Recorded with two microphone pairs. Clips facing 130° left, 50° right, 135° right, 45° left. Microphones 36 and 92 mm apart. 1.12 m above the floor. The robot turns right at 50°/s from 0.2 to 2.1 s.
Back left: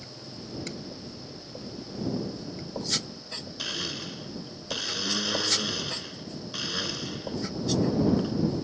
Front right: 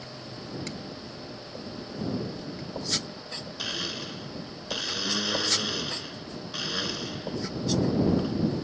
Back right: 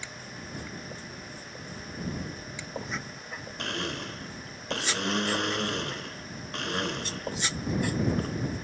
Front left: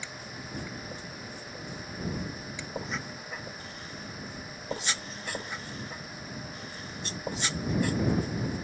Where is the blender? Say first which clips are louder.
Front right 1 dB, back right 8 dB; 135° right.